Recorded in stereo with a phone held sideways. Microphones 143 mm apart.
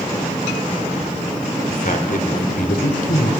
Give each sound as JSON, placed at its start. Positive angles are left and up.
{"t": 1.7, "sound": "a man speaking", "side_deg": 75, "distance_m": 2.5}